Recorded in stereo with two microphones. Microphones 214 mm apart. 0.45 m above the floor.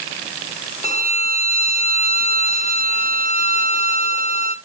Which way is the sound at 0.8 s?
30° left (ahead or behind).